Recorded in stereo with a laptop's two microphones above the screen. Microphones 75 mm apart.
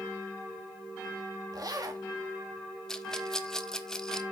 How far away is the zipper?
About 1.4 m.